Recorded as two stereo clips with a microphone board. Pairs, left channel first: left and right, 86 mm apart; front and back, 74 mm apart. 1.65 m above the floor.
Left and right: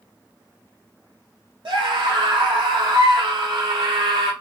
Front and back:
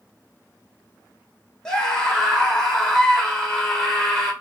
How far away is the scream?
About 1.3 m.